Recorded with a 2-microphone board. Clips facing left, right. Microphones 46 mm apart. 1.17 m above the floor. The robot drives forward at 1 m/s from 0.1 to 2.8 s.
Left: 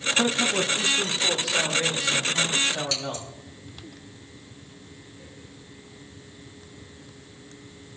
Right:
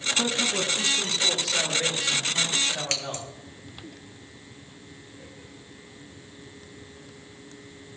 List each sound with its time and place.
0.2 s a man speaking: 20° left (ahead or behind), 1.1 m; by 3.3 s 5° left (ahead or behind), 3.5 m
2.9 s scissors: 60° right (ahead or behind), 1.2 m